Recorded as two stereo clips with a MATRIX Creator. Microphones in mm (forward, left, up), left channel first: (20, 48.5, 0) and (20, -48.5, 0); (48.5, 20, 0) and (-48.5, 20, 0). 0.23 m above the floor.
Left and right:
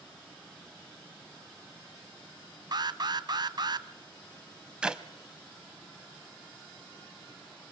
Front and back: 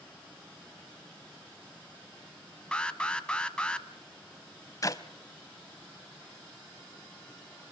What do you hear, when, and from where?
2.7 s an alarm: 75° right, 1.0 m
4.8 s a clap: 15° right, 1.2 m